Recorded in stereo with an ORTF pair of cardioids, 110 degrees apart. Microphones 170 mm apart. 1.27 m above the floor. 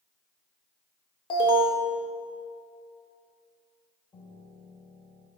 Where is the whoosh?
No whoosh in this recording.